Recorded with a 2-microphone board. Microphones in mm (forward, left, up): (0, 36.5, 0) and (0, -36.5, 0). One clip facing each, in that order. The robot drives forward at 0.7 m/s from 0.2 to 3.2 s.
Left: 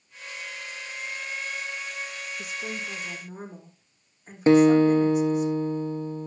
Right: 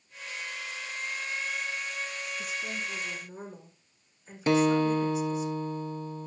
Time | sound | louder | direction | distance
2.4 | a woman speaking | left 2 dB | 60° left (ahead or behind) | 7 m
4.5 | a guitar | left 7 dB | 25° left (ahead or behind) | 0.9 m